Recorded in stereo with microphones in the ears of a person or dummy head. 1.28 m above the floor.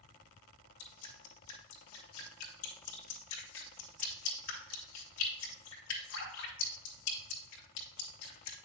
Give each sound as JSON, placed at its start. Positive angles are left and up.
{"t": 0.8, "sound": "dripping", "side_deg": 75, "distance_m": 2.5}